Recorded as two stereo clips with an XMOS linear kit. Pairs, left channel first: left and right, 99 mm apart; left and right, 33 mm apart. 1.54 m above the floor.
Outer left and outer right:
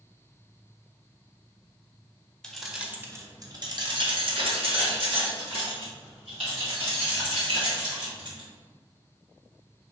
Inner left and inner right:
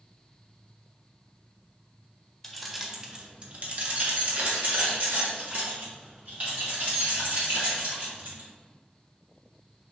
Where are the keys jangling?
5° left (ahead or behind), 0.6 m; by 8.5 s 70° right (ahead or behind), 3 m.